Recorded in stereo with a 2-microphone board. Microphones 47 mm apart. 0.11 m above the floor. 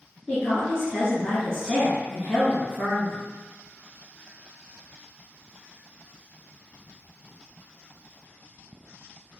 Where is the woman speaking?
15° left (ahead or behind), 1.2 m.